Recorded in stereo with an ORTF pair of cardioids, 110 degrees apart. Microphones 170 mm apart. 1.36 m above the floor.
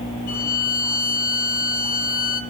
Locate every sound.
0.3 s a violin: 70° left, 6 m